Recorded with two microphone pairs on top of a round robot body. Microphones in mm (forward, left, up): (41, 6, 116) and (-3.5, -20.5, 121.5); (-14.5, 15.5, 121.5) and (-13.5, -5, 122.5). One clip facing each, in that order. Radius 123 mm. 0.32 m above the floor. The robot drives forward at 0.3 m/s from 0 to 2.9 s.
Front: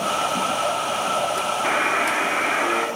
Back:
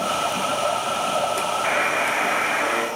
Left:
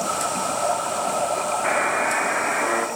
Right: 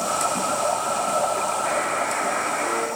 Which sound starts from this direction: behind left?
A buzzer, at 1.6 s.